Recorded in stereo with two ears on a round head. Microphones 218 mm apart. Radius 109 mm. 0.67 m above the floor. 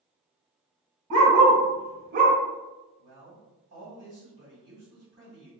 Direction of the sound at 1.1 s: 70° right (ahead or behind).